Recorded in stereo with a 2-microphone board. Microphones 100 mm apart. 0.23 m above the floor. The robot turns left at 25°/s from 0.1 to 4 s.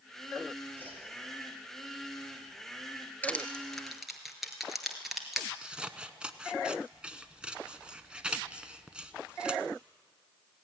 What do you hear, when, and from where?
0.8 s a whoosh: 20° left (ahead or behind), 5.5 m; by 1.0 s 15° left (ahead or behind), 5.5 m
3.2 s crushing: 15° left (ahead or behind), 2 m; by 5.5 s centre (ahead or behind), 2 m
5.6 s scissors: 10° right (ahead or behind), 0.9 m